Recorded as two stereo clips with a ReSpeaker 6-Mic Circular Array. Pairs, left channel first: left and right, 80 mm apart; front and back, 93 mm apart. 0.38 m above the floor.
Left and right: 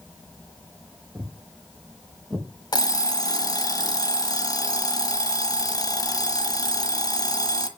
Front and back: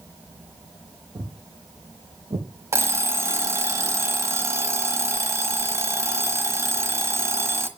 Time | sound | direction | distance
1.1 | footsteps | 145° right | 3 m
2.7 | an alarm clock | 120° left | 1.4 m